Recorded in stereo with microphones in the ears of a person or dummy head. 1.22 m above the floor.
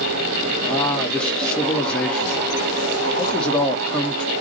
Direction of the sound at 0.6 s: 10° left (ahead or behind).